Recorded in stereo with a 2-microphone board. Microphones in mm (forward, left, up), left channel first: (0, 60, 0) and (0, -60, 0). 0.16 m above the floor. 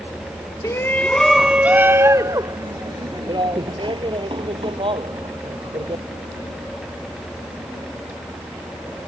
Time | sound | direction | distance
0.6 | a shout | 25° left (ahead or behind) | ?